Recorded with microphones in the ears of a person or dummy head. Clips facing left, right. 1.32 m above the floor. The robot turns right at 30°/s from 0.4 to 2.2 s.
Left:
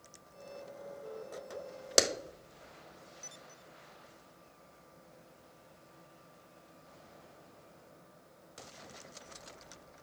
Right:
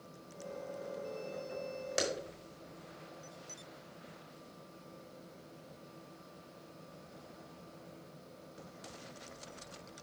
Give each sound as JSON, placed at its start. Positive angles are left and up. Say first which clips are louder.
{"t": 2.0, "sound": "a clap", "louder": "left 5 dB", "side_deg": 75, "distance_m": 1.0}